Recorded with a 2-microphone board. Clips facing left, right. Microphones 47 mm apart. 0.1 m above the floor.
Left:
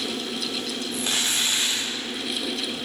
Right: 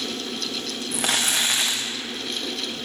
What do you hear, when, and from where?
0.9 s crumpling: 70° right (ahead or behind), 3 m